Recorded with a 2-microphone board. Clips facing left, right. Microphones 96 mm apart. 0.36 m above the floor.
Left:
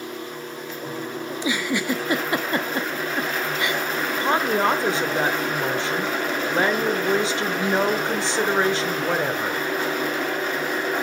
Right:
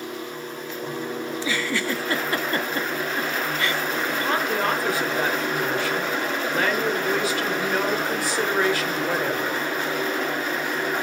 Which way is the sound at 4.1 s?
25° left (ahead or behind).